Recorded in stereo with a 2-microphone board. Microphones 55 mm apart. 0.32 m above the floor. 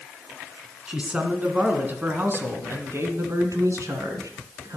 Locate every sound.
0.9 s a man speaking: 15° right (ahead or behind), 2.5 m; by 4.8 s 70° right (ahead or behind), 3 m